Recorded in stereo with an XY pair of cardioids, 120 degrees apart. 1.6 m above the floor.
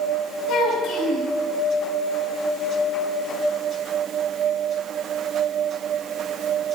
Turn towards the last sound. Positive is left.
turn(degrees=70)